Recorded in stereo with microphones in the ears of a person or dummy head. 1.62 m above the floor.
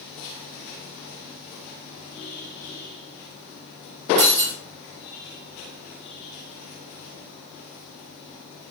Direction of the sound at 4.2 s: 35° right (ahead or behind).